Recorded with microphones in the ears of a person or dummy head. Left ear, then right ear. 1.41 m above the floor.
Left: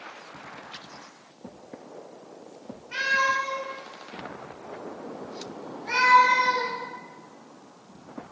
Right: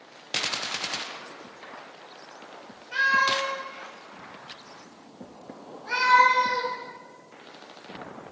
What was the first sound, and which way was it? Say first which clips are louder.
A cat meowing: right 2 dB; 10° left (ahead or behind).